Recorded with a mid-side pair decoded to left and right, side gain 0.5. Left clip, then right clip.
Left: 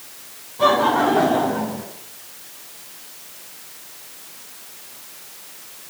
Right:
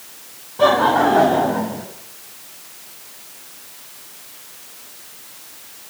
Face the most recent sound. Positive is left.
turn(degrees=-40)